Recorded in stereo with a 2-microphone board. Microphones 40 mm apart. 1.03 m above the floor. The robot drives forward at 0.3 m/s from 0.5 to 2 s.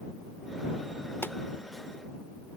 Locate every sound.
1.2 s a pop: 65° left (ahead or behind)